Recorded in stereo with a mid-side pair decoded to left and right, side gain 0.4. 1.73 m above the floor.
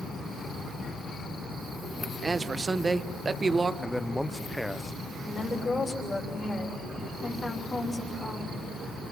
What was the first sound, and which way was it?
A man speaking, 30° right.